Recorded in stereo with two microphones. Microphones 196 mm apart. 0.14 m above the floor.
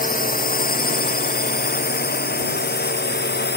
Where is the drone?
45° left (ahead or behind); by 3.6 s 60° left (ahead or behind).